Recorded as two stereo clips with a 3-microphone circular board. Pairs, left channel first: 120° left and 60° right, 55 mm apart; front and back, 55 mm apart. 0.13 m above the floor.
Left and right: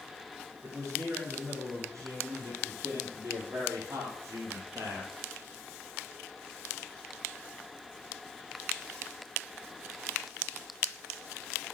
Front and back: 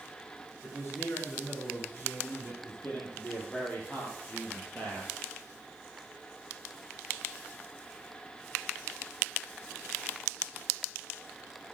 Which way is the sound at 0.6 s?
45° right.